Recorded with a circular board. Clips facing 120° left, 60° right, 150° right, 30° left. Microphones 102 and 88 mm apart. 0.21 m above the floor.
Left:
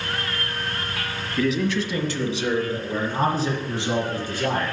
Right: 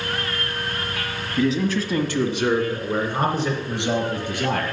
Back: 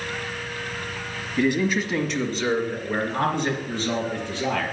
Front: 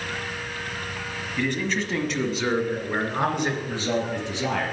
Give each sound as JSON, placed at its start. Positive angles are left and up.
{"t": 1.4, "sound": "a man speaking", "azimuth_deg": -90, "distance_m": 1.1}